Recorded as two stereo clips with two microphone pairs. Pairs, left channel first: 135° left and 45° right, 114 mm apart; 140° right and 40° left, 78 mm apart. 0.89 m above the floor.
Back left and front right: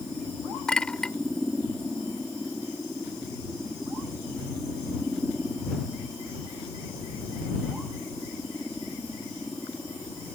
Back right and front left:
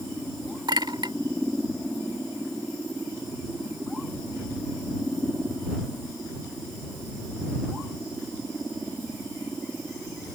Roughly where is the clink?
Ahead left.